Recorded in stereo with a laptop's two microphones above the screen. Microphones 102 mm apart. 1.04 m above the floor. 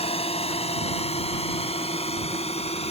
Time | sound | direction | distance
0.0 | a drone | 80° left | ?